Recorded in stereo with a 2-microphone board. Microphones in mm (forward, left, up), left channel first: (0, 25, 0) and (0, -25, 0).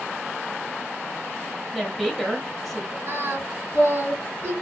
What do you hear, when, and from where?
1.7 s a woman speaking: centre (ahead or behind), 1.0 m
3.1 s singing: 55° right (ahead or behind), 1.8 m